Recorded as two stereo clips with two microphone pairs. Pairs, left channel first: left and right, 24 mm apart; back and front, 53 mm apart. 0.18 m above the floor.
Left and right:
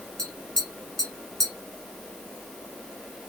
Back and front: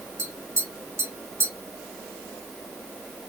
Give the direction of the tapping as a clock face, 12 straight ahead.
11 o'clock.